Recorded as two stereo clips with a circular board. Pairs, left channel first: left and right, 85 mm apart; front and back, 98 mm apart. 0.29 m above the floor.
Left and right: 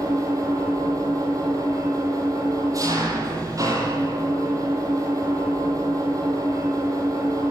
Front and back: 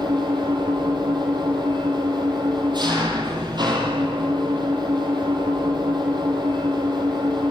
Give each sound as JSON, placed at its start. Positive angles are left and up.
{"t": 0.0, "sound": "an engine running", "azimuth_deg": -140, "distance_m": 6.5}